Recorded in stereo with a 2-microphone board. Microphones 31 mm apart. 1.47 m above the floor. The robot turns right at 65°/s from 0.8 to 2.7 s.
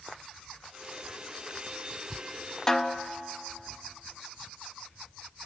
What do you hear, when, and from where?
2.7 s a snare drum: 20° left (ahead or behind), 0.9 m